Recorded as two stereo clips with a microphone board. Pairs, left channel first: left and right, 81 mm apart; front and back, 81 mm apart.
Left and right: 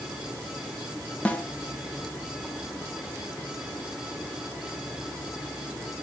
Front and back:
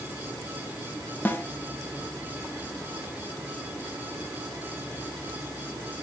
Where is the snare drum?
35° left, 1.0 m.